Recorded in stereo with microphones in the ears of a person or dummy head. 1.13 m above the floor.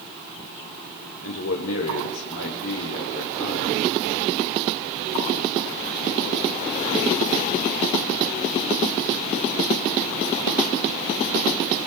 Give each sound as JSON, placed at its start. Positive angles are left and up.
{"t": 1.2, "sound": "a man speaking", "side_deg": 80, "distance_m": 3.0}